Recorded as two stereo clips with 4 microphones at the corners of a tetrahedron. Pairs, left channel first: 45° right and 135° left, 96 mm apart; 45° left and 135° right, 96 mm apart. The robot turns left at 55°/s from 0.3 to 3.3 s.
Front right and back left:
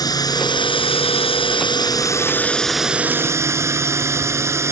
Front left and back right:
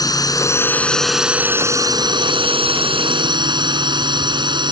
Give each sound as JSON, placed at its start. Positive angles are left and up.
{"t": 0.0, "sound": "a drone", "azimuth_deg": 0}